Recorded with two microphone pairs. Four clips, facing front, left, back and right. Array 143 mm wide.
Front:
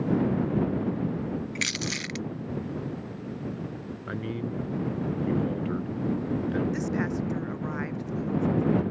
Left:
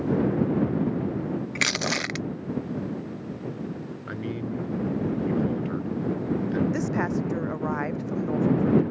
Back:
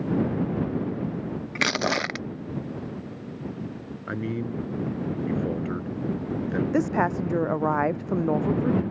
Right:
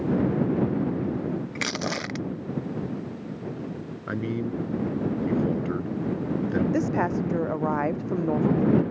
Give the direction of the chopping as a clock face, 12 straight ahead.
I don't hear chopping.